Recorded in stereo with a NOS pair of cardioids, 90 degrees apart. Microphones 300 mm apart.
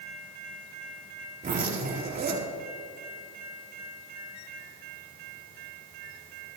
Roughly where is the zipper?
Ahead right.